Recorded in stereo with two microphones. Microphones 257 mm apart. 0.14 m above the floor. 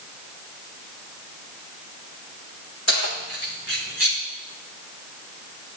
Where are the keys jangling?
65° left (ahead or behind), 5 m; by 4.2 s 55° left (ahead or behind), 4 m.